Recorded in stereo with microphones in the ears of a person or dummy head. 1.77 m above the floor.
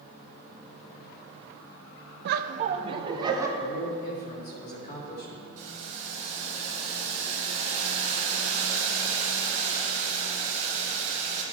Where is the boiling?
40° right (ahead or behind), 1.8 m.